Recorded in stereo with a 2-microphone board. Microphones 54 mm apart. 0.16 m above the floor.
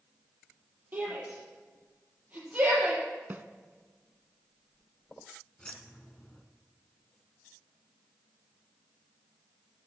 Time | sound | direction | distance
0.9 | a shout | 30° right (ahead or behind) | 5 m
3.3 | a snare drum | 40° right (ahead or behind) | 0.6 m
5.6 | keys jangling | 15° left (ahead or behind) | 1.2 m